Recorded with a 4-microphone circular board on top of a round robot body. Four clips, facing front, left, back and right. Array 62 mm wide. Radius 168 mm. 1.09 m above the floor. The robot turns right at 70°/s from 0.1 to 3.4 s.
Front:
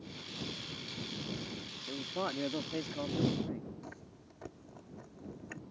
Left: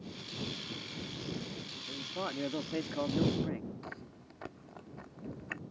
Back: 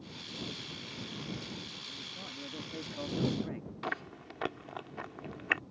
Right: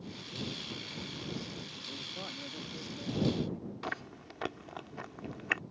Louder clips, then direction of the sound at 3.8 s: Right 7 dB, back 12 dB; 160° right.